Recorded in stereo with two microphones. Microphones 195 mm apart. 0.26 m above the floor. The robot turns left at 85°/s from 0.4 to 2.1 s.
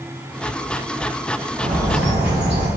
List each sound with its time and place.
1.6 s a bird: 60° right, 4 m; by 2.7 s 100° right, 4 m